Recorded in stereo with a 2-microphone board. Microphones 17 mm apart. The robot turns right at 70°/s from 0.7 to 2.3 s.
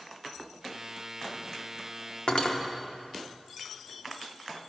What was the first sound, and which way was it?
Cutlery clinking, 70° left (ahead or behind).